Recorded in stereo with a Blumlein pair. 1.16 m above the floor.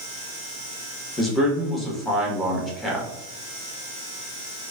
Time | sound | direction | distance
1.2 | a man speaking | 10° left | 1.1 m